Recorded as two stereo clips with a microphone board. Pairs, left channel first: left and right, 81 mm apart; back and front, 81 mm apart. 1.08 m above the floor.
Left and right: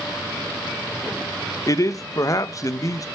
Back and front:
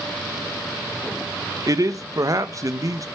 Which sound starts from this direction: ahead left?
A man speaking, at 1.7 s.